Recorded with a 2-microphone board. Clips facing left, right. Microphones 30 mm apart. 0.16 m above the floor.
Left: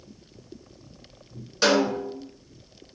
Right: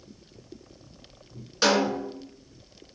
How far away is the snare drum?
About 1.2 m.